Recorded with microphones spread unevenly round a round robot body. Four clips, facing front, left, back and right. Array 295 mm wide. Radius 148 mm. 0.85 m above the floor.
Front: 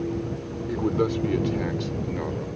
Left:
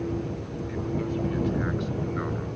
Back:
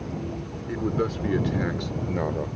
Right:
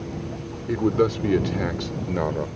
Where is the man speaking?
75° right; by 2.5 s 115° right.